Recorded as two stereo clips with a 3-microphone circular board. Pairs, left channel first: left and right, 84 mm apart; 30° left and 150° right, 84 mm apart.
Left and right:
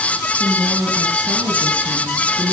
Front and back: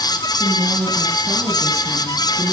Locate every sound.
0.4 s a woman speaking: 145° right, 3 m; by 2.5 s 90° right, 4 m